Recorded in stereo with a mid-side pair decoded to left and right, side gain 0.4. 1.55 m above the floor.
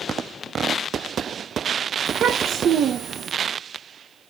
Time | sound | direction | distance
2.1 | a child speaking | 70° right | 1.3 m